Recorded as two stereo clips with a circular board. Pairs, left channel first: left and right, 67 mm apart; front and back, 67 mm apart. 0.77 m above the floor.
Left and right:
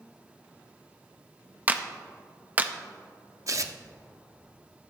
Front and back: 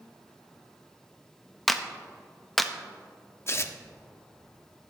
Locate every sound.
1.7 s a clap: 85° right, 0.6 m
3.5 s tearing paper: 50° right, 0.6 m